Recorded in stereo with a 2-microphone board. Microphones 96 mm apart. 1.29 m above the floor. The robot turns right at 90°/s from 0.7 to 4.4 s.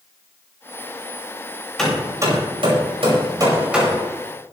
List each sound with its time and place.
1.8 s hammering: 5° left (ahead or behind), 5.5 m; by 4.1 s 20° left (ahead or behind), 5.5 m